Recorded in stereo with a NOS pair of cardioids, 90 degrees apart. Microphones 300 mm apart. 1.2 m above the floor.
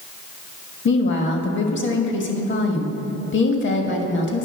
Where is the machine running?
I don't hear a machine running.